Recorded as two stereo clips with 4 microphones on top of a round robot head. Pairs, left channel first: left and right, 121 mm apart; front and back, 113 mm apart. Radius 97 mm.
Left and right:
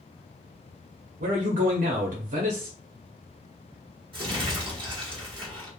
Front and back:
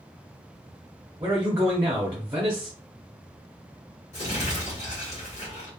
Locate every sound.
1.2 s a man speaking: 100° right, 0.6 m
4.1 s crumpling: 40° right, 1.4 m